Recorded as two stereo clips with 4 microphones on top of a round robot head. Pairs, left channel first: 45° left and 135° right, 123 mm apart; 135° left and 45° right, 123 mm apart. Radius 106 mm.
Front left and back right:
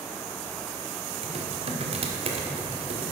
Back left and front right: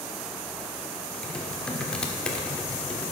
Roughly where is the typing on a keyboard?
Behind right.